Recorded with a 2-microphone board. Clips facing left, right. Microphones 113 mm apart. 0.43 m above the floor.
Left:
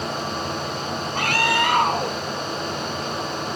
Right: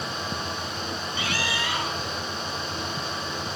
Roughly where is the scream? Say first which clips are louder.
Left 10 dB; left.